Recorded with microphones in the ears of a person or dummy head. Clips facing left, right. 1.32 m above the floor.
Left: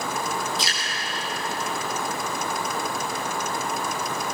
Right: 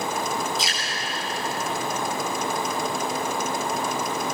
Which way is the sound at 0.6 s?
5° right (ahead or behind).